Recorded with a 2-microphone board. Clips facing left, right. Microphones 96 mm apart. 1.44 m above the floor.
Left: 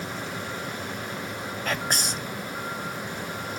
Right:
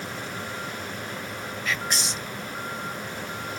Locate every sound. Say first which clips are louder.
1.6 s whispering: left 1 dB; 50° left (ahead or behind), 0.5 m